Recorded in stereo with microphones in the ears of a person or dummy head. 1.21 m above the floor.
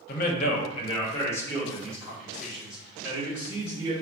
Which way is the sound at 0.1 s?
55° left (ahead or behind).